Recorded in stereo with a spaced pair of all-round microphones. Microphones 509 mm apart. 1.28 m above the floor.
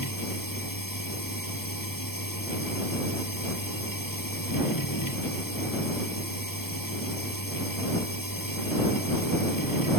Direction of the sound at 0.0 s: 40° left (ahead or behind).